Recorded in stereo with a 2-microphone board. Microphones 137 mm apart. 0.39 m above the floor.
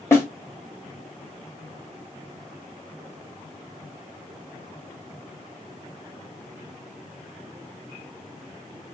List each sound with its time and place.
0.1 s a snare drum: 15° left (ahead or behind), 1.1 m